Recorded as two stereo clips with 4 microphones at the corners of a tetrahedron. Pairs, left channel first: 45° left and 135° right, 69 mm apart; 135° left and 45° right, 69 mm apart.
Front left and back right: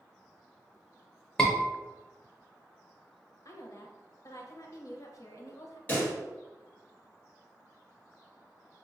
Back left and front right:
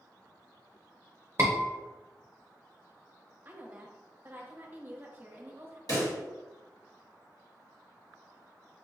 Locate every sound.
1.4 s a scream: 25° right, 0.6 m
3.5 s a woman speaking: 15° left, 0.7 m
5.9 s a pop: 110° left, 1.9 m